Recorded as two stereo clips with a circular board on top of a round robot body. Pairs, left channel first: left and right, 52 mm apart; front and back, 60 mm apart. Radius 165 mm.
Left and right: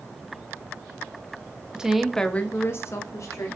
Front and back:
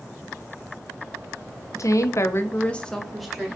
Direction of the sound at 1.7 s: 15° right.